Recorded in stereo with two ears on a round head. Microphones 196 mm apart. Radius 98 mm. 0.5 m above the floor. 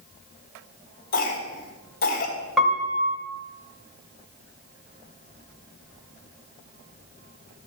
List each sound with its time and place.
1.1 s a cough: 45° left (ahead or behind), 2 m
2.6 s a piano: centre (ahead or behind), 1.7 m